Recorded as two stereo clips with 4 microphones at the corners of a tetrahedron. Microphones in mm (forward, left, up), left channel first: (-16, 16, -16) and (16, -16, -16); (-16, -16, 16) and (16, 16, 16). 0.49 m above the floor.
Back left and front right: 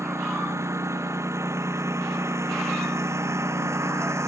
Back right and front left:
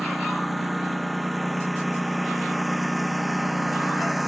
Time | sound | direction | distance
0.0 | a lawn mower | 45° right | ?